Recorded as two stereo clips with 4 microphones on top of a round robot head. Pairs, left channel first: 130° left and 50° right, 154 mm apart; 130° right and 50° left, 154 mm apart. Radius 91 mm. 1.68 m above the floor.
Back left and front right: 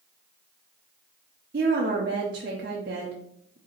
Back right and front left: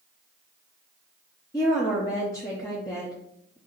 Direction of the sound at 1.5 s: 65° right.